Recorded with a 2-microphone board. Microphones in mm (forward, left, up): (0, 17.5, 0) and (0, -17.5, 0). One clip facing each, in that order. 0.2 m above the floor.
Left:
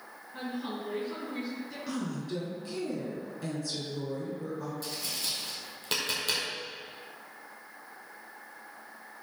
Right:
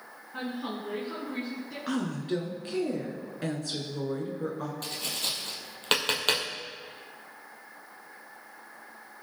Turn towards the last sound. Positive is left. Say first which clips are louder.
# right 3 dB
turn(degrees=-50)  # may be behind; listen again after turning